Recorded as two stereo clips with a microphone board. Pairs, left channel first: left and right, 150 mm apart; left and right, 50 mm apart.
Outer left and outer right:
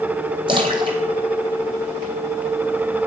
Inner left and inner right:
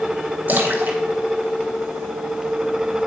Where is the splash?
35° right (ahead or behind), 1.5 m.